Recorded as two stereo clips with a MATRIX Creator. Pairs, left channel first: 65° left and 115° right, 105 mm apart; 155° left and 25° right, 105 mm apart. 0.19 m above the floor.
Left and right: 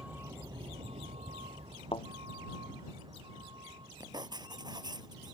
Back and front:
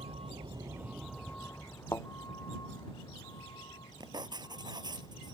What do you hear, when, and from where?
0.0 s a vehicle: 35° right; by 5.3 s 160° right
1.9 s a thud: 95° left
4.0 s writing: 65° right